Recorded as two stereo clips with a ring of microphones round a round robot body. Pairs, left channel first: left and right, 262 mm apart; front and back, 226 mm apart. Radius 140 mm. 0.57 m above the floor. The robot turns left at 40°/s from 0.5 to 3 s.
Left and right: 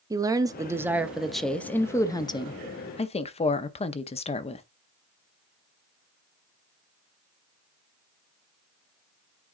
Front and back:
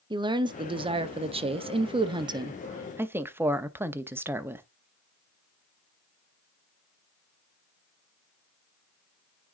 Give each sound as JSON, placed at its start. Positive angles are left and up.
{"t": 0.1, "sound": "a woman speaking", "azimuth_deg": -145, "distance_m": 0.7}